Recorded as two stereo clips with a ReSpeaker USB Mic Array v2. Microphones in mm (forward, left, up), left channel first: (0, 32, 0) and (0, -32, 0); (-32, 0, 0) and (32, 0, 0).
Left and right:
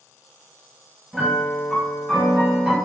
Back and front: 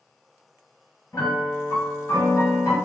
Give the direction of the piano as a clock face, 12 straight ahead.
6 o'clock.